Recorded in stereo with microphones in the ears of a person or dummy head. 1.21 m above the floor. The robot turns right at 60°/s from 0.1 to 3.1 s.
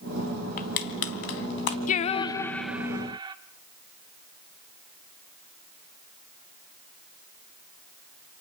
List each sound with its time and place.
0.6 s crushing: 50° left (ahead or behind), 2.5 m; by 1.8 s 55° left (ahead or behind), 2.5 m
1.9 s singing: 135° left, 0.8 m; by 3.4 s 155° right, 0.8 m